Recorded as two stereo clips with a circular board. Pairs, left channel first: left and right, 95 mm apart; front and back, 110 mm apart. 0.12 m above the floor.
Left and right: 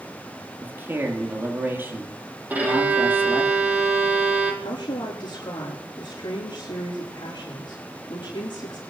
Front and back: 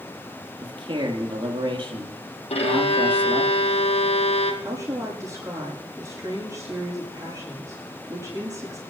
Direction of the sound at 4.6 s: 125° left.